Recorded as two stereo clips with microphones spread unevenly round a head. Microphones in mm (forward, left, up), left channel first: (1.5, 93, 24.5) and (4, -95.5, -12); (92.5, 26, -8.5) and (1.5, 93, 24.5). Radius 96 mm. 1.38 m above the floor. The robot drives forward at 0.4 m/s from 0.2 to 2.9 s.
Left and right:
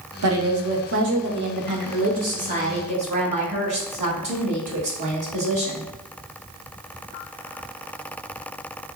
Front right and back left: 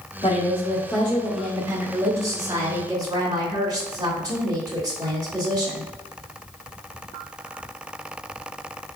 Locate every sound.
0.2 s a woman speaking: 100° right, 0.8 m; by 5.8 s 145° right, 1.5 m